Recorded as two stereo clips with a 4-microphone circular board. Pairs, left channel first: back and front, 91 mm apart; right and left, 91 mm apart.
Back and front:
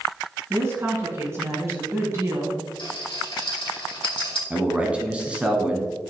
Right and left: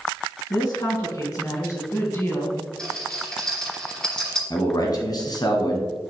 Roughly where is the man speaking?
Right.